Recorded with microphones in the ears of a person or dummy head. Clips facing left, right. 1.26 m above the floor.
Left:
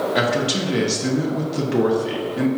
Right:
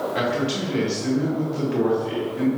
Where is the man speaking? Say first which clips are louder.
Left 3 dB; 55° left (ahead or behind), 0.8 m.